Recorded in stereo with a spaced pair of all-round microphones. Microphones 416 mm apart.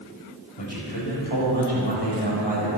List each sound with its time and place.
0.6 s a man speaking: 75° left (ahead or behind), 5.5 m